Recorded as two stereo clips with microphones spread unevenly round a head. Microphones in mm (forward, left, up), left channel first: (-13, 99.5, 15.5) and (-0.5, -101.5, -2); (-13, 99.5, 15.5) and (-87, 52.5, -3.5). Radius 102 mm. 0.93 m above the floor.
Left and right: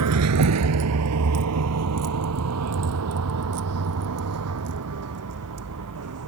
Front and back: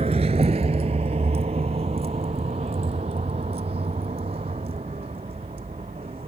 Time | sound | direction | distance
0.0 | a vehicle | 90° right | ?